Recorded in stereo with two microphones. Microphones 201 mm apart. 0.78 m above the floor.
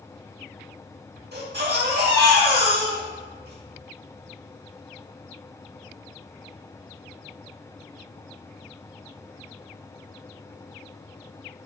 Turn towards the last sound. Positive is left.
turn(degrees=-55)  # may be behind; listen again after turning